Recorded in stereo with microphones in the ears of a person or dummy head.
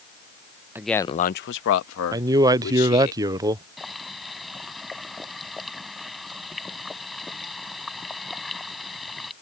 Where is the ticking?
No ticking in this recording.